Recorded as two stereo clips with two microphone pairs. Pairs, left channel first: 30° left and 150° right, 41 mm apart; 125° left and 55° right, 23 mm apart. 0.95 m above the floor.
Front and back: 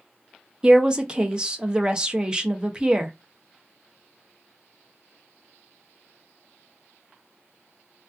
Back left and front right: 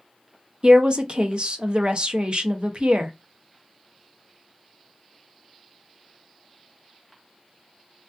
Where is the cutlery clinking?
I don't hear cutlery clinking.